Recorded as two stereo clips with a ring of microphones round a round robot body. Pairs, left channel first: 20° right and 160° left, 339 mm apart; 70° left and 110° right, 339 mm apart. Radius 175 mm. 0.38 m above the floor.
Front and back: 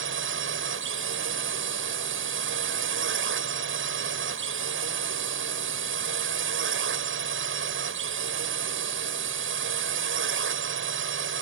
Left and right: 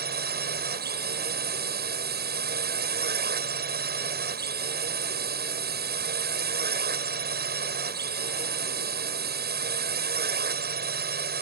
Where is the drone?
165° right.